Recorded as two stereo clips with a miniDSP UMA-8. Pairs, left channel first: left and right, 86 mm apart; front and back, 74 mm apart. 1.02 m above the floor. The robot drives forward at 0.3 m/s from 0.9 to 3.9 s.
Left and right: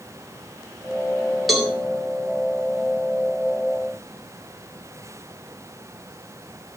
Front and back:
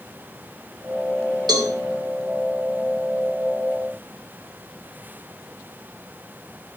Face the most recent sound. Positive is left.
turn(degrees=180)